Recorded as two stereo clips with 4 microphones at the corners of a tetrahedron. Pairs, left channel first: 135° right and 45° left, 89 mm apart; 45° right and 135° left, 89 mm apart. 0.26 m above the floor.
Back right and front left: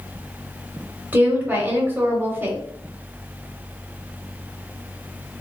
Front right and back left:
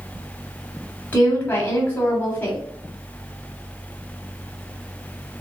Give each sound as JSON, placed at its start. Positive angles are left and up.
{"t": 1.1, "sound": "a woman speaking", "azimuth_deg": 0, "distance_m": 1.2}